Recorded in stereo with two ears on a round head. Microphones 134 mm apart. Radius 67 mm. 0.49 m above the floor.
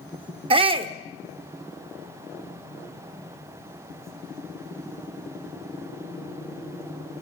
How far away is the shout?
About 0.9 m.